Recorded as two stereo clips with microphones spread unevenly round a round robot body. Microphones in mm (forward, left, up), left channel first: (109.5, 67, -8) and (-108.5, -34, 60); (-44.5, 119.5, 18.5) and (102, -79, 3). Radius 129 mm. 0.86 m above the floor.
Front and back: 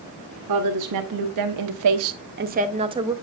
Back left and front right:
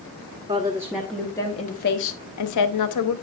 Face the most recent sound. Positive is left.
turn(degrees=125)